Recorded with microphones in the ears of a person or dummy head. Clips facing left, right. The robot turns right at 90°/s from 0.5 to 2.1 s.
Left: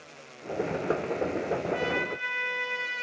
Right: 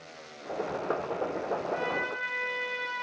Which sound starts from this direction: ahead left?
A trumpet, at 1.7 s.